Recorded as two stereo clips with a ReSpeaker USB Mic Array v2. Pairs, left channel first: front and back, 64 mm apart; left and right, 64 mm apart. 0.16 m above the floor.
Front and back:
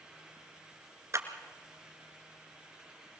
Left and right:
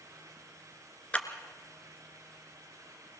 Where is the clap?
155° left, 1.8 m.